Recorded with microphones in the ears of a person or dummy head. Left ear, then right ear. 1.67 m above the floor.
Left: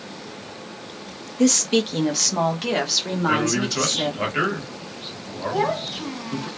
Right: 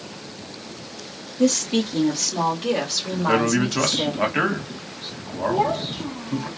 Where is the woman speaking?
50° left (ahead or behind), 0.9 m; by 4.1 s 55° left (ahead or behind), 1.6 m.